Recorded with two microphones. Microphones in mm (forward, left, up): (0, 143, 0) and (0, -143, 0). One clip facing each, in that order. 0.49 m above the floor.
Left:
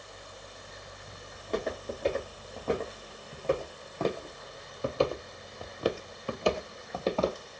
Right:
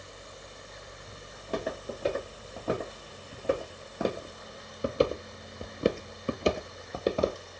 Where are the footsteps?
5° right (ahead or behind), 2.5 m; by 7.4 s 15° right (ahead or behind), 1.0 m.